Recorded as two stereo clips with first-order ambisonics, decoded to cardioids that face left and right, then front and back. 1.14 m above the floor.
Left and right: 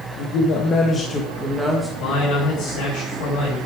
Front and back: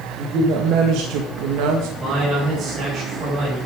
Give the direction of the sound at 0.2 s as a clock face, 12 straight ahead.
8 o'clock.